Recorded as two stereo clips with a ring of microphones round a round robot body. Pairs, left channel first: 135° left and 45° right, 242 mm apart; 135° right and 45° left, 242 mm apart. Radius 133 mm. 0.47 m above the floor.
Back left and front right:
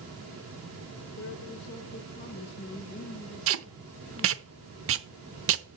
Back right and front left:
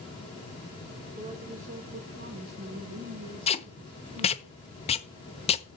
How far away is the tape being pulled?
About 0.8 m.